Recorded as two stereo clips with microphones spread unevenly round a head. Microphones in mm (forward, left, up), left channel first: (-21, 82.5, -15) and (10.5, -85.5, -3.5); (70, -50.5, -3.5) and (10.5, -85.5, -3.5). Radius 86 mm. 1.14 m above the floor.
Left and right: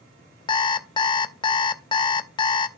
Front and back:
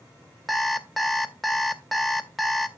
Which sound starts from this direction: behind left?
An alarm clock, at 0.5 s.